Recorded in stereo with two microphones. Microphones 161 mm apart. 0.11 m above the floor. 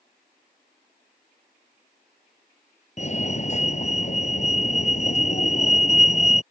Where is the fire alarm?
45° left (ahead or behind).